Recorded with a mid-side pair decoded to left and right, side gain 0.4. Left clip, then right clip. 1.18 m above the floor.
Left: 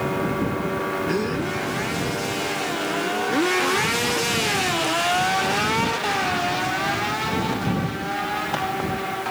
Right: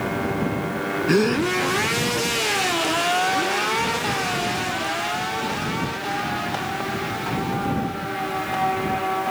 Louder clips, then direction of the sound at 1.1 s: Right 5 dB; 55° right.